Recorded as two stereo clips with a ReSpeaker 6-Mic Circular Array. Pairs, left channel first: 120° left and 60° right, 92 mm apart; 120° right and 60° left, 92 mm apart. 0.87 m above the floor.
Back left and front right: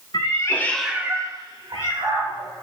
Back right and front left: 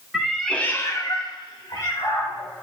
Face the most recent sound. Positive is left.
turn(degrees=-75)